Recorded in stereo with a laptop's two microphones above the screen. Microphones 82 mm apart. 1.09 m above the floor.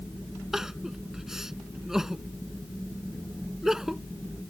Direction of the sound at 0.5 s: 5° right (ahead or behind).